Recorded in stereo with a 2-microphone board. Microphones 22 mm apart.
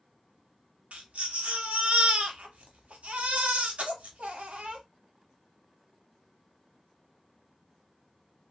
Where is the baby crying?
80° right, 0.9 m.